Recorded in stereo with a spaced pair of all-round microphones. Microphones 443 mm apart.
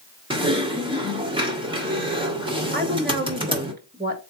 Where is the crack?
I don't hear a crack.